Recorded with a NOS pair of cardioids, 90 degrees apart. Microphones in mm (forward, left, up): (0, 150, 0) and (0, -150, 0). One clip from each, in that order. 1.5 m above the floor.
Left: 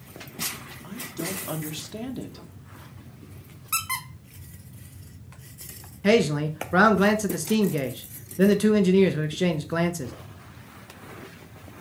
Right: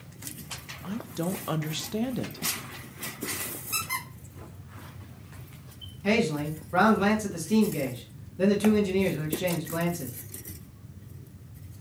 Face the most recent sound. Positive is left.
turn(degrees=40)